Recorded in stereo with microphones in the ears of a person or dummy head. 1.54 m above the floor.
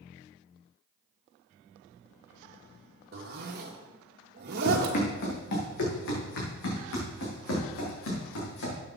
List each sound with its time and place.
3.1 s a zipper: 50° right (ahead or behind), 1.9 m
4.7 s running footsteps: 50° left (ahead or behind), 5 m; by 8.8 s 75° left (ahead or behind), 6.5 m